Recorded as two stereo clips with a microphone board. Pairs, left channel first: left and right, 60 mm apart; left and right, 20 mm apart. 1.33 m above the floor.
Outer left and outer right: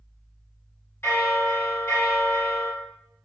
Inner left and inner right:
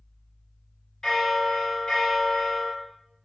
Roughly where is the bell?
Left.